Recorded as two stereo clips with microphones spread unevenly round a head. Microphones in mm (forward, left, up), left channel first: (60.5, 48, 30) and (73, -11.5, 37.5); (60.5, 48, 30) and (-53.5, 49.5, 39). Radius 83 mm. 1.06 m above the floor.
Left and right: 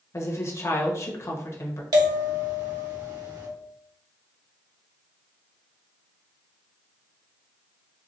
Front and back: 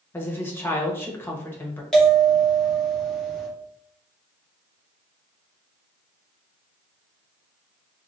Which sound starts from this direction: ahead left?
A woman speaking, at 0.1 s.